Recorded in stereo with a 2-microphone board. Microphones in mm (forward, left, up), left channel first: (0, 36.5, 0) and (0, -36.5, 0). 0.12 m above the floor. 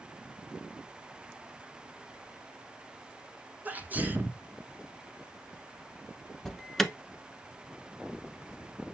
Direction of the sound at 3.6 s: 20° right (ahead or behind).